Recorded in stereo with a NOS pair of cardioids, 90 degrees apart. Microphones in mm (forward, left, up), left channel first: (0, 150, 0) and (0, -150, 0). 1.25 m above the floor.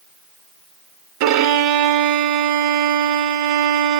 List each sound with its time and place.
1.2 s a violin: 70° right, 1.1 m